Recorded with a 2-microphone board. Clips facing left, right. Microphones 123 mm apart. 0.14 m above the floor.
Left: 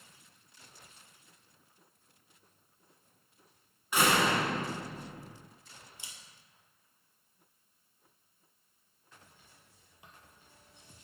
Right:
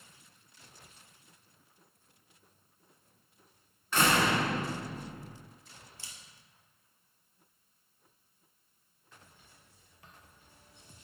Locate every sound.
3.9 s a door slam: 15° left (ahead or behind), 1.2 m
6.0 s a camera shutter: 20° left (ahead or behind), 1.0 m